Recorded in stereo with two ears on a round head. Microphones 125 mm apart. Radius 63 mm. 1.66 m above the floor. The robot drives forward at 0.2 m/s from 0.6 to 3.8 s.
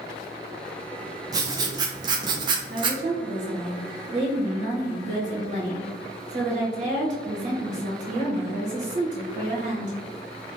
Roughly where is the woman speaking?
Right.